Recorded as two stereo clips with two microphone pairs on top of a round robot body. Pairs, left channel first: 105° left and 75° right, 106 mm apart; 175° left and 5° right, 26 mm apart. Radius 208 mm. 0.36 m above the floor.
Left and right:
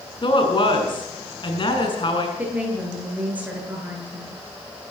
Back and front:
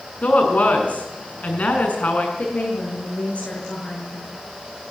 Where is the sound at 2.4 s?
150° right, 9.5 m.